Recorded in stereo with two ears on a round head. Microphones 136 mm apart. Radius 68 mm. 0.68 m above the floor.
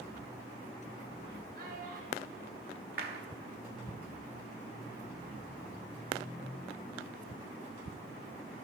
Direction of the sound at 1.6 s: 65° right (ahead or behind).